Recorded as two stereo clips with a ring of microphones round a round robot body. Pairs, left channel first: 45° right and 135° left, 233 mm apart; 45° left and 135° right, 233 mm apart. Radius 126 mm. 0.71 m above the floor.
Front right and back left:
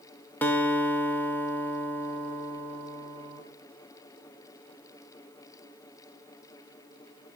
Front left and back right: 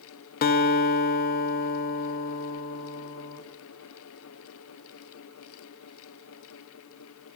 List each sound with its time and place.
0.4 s a guitar: 35° left, 0.6 m